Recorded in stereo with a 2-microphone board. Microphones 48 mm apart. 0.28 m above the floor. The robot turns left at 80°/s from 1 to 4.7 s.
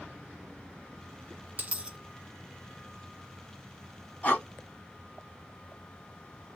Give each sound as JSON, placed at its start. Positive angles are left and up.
{"t": 1.6, "sound": "a dropped coin", "side_deg": -40, "distance_m": 1.0}
{"t": 4.2, "sound": "breathing", "side_deg": 30, "distance_m": 1.7}